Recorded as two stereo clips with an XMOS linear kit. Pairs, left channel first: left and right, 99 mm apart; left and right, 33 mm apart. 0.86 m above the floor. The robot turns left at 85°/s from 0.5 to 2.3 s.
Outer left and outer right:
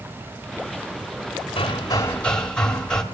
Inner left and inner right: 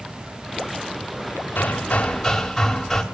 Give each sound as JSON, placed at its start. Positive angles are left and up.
{"t": 1.6, "sound": "hammering", "azimuth_deg": 70, "distance_m": 2.0}